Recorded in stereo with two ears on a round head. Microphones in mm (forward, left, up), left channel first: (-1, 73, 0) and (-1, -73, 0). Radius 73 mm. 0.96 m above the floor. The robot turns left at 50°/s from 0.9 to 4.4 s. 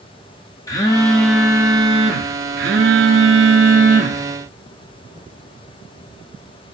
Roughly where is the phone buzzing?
Ahead.